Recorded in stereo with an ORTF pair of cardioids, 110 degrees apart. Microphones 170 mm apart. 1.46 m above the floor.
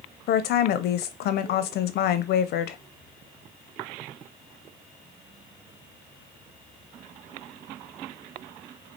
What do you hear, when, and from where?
0.3 s a woman speaking: 65° left, 0.7 m